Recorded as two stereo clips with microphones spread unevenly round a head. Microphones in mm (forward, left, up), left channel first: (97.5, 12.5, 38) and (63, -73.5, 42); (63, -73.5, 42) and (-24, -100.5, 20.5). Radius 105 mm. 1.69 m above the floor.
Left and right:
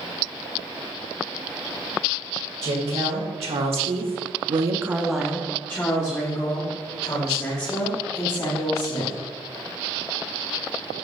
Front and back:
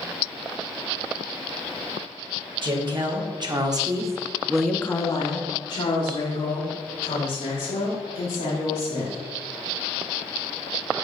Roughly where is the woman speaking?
Behind right.